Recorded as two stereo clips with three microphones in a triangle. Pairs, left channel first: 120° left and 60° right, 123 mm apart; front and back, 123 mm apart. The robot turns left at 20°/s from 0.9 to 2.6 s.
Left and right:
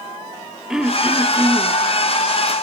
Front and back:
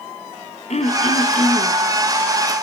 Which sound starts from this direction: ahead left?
Throat clearing, at 0.7 s.